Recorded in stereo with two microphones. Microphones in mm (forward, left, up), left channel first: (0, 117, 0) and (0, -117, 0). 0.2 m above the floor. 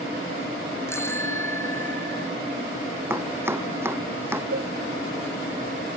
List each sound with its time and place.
0.9 s a bicycle bell: 10° left (ahead or behind)
3.1 s chopping: 10° right (ahead or behind)
4.5 s dishes clattering: 60° right (ahead or behind)